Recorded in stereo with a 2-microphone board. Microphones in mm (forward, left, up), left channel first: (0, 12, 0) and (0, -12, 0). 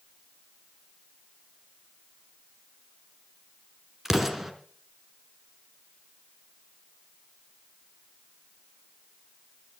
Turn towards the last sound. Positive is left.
turn(degrees=-10)  # may be behind; listen again after turning